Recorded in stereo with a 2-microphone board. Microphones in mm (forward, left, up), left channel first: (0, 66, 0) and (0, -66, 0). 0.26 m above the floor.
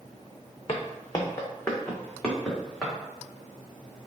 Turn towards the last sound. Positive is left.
turn(degrees=0)  # may be behind; listen again after turning